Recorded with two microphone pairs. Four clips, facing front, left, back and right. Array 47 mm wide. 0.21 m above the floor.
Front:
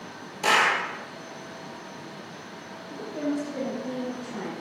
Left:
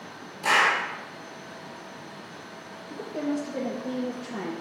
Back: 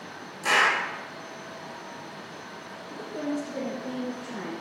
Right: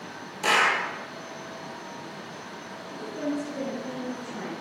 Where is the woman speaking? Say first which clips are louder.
Left 1 dB, front 2 dB; 90° left, 4 m.